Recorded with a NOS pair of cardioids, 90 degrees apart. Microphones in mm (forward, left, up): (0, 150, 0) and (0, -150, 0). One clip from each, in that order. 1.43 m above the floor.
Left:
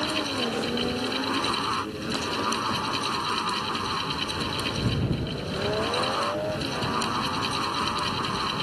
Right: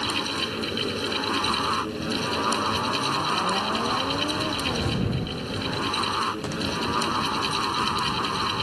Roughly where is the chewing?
I don't hear chewing.